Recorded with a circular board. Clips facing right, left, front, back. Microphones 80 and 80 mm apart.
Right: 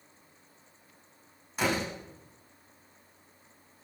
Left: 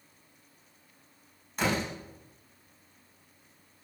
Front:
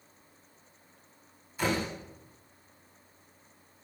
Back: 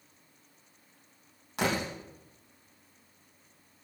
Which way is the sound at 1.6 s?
175° right.